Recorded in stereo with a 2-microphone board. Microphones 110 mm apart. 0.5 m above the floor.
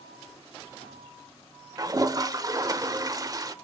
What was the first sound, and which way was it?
A toilet flushing, 35° right (ahead or behind).